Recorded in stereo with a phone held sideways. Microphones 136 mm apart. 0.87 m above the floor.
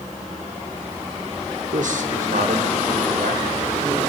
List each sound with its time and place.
1.7 s a man speaking: 65° right (ahead or behind), 2.5 m; by 4.0 s 80° right, 5.5 m